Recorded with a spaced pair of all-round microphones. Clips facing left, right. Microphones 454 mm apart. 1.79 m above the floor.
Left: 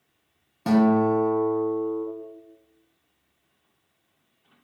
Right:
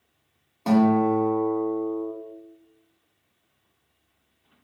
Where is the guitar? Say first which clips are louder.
Even; 30° left (ahead or behind), 0.7 m.